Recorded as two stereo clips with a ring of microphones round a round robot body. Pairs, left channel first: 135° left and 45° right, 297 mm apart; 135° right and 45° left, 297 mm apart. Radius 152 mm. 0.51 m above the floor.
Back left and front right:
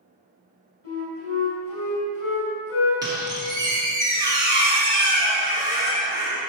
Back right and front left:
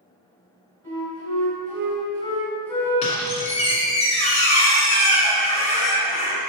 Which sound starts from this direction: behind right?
A squeak, at 3.0 s.